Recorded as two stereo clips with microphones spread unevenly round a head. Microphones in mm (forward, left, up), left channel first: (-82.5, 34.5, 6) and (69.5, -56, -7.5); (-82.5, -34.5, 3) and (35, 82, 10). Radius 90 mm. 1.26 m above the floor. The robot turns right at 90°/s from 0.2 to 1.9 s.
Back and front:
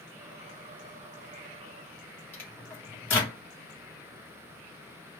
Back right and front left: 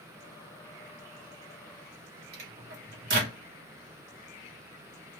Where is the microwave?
70° left, 1.7 m.